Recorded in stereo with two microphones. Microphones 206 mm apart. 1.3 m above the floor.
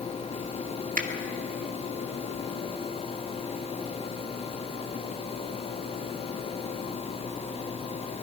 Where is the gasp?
No gasp in this recording.